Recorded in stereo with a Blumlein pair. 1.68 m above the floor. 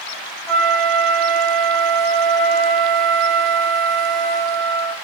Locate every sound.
0.5 s a flute: 15° right, 0.8 m